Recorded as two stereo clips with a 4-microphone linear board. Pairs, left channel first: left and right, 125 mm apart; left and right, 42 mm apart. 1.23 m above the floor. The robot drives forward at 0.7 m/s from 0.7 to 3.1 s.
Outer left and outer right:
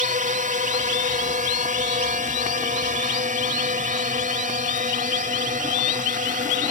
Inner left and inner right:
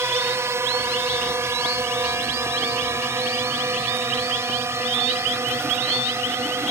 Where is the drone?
70° right (ahead or behind); by 6.7 s 75° right (ahead or behind).